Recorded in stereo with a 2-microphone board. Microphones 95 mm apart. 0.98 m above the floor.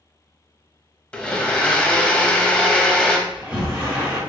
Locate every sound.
1.1 s a blender: 15° left (ahead or behind), 0.5 m
3.3 s a sliding door: 15° right (ahead or behind), 1.3 m